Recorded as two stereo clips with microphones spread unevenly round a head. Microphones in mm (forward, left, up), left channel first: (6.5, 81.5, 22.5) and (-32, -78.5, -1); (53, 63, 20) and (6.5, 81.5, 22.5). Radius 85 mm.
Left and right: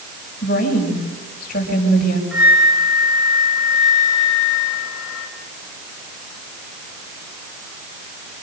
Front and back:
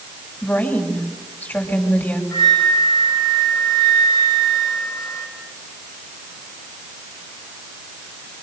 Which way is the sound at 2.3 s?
15° right.